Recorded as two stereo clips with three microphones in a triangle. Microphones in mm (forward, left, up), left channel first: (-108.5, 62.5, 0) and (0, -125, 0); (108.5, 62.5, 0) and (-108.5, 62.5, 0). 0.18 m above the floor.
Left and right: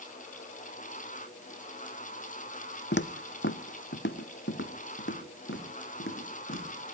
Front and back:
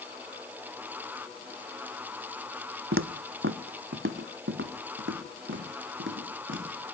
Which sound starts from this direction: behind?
Footsteps, at 2.9 s.